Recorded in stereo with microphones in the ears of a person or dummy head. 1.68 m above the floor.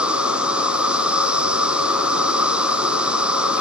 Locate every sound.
0.0 s an insect: 5° right (ahead or behind), 1.1 m